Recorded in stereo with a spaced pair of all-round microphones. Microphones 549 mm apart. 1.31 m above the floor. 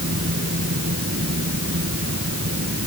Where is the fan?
25° right (ahead or behind).